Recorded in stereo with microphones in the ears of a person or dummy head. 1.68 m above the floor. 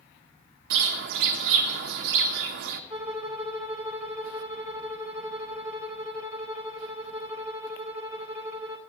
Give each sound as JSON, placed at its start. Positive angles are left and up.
{"t": 0.7, "sound": "a bird", "side_deg": -55, "distance_m": 1.2}
{"t": 2.9, "sound": "a violin", "side_deg": -15, "distance_m": 2.5}